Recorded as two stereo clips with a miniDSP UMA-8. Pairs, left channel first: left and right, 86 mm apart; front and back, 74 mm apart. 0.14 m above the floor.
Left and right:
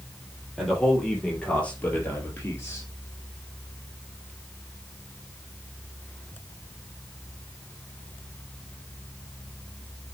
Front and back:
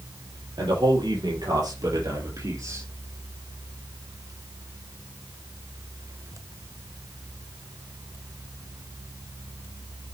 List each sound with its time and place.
0.6 s a man speaking: 175° left, 5 m; by 2.9 s 140° left, 3.5 m